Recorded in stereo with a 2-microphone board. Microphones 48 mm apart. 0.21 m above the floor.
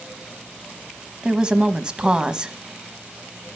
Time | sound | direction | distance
1.2 | a woman speaking | 20° right (ahead or behind) | 1.1 m